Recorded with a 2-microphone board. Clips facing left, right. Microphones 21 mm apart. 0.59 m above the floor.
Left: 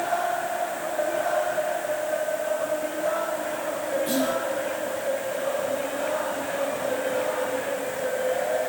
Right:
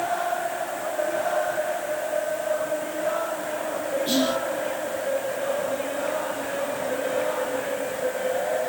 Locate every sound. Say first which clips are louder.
4.1 s whispering: right 3 dB; 35° right (ahead or behind), 1.1 m